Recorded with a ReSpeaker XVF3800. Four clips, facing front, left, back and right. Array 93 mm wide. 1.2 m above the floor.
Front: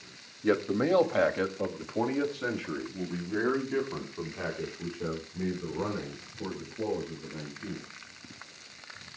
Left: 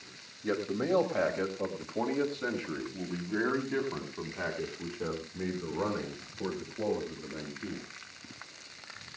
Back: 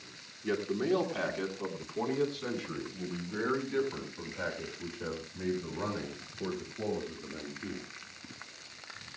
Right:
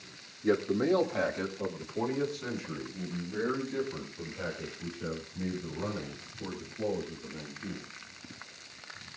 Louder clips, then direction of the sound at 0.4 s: Right 4 dB, front 5 dB; straight ahead.